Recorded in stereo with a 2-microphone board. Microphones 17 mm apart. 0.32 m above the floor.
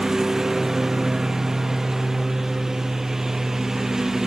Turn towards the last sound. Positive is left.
turn(degrees=-30)  # may be behind; listen again after turning